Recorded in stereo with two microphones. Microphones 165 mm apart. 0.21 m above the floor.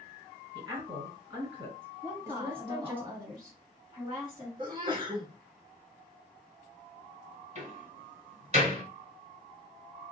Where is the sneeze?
30° right (ahead or behind), 1.4 m.